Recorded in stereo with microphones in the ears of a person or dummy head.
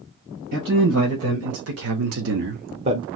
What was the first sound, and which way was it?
A man speaking, 65° right (ahead or behind).